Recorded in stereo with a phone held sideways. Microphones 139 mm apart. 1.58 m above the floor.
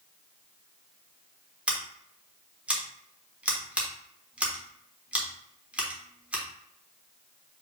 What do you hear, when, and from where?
1.7 s scissors: 10° right (ahead or behind), 1.0 m